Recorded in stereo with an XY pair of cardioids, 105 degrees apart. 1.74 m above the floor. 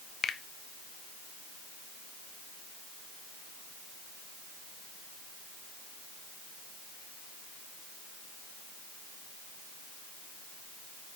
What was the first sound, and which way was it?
A finger snap, 60° left.